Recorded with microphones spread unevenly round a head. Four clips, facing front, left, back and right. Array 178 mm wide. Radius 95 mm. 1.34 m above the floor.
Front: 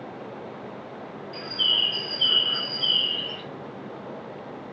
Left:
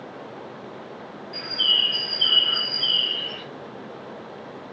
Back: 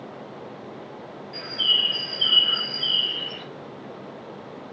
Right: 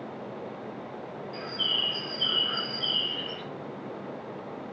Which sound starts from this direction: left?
A bird, at 1.3 s.